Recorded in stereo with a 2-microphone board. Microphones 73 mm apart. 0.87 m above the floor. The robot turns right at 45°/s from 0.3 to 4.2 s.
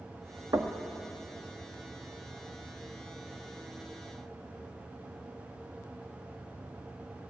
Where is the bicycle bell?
I don't hear a bicycle bell.